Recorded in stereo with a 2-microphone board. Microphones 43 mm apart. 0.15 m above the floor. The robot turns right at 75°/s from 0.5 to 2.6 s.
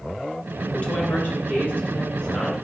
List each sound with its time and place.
0.7 s a woman speaking: 40° left, 1.5 m; by 2.6 s straight behind, 1.5 m